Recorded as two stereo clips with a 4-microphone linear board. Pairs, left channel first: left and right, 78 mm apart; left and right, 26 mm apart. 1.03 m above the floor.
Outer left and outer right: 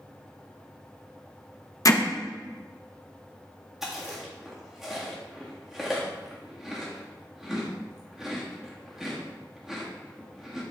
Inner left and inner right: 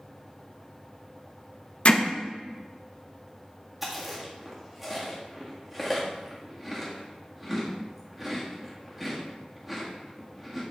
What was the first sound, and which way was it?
Hammering, 45° left (ahead or behind).